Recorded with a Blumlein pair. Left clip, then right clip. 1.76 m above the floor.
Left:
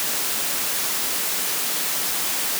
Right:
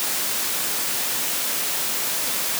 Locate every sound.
Only background noise.